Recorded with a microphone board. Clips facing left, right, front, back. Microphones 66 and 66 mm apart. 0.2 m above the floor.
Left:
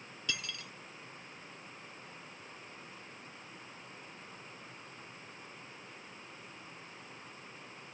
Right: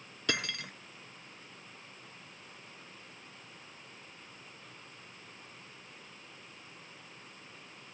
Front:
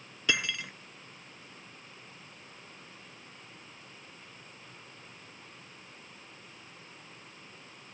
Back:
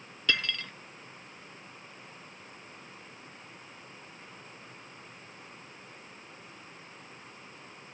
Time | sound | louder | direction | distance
0.3 | cutlery clinking | right 7 dB, even | 75° right | ?